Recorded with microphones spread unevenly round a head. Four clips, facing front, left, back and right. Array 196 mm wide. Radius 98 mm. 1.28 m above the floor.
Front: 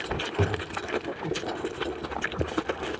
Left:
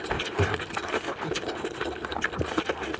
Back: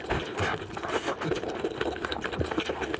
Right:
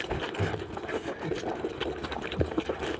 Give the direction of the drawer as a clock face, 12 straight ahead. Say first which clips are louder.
Left 8 dB, front 2 dB; 10 o'clock.